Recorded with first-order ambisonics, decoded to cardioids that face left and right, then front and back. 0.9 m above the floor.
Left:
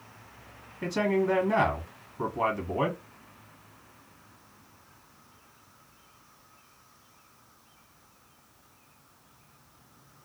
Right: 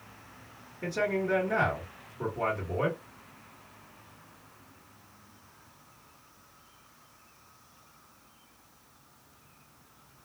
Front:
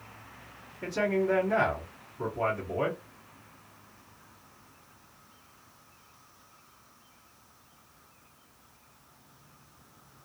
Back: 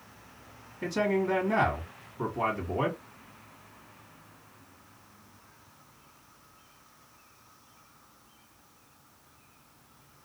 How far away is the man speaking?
About 1.4 m.